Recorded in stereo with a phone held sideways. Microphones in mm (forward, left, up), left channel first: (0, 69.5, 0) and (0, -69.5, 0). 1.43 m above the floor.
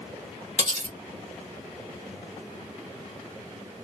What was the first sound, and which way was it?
Cutlery clinking, 60° right (ahead or behind).